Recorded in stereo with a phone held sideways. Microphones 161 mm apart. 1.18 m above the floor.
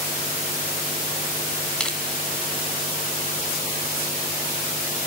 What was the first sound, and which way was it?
Crushing, 5° left (ahead or behind).